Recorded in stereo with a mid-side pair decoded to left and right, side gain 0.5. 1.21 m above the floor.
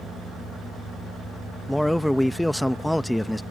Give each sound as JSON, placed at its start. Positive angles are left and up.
{"t": 1.7, "sound": "a man speaking", "azimuth_deg": 10}